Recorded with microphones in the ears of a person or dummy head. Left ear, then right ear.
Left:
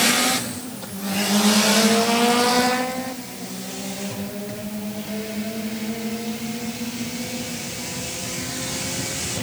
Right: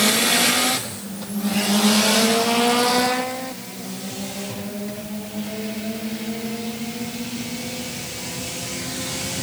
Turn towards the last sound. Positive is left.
No sound to turn to.